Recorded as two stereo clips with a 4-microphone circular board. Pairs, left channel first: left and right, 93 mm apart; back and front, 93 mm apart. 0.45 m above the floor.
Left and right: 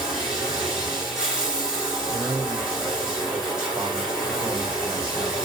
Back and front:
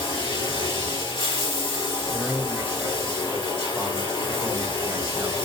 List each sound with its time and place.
0.0 s running water: 175° right, 2.5 m
2.1 s a man speaking: 65° right, 1.3 m